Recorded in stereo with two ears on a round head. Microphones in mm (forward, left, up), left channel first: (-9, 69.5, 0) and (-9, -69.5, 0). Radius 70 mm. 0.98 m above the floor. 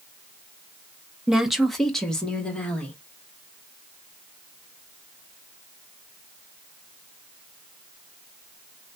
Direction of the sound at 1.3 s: 5° right (ahead or behind).